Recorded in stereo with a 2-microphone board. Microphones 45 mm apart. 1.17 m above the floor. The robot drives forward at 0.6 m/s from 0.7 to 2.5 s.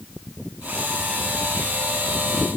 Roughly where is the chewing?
I don't hear chewing.